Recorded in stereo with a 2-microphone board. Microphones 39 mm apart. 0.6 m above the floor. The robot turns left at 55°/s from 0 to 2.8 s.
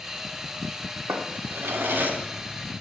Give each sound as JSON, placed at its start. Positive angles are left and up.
{"t": 1.1, "sound": "a drawer", "azimuth_deg": -70, "distance_m": 0.7}